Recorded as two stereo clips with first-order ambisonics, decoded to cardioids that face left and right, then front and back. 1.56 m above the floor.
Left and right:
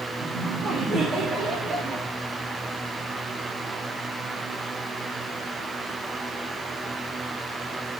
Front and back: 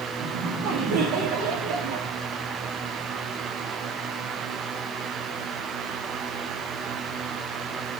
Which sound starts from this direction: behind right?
Laughter, at 0.2 s.